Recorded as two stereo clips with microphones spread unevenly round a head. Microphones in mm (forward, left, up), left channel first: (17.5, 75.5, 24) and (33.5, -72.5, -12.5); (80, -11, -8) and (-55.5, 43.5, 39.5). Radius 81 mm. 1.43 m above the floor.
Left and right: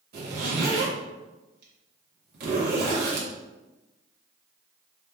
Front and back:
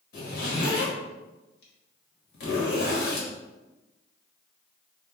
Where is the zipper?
55° right, 1.1 m.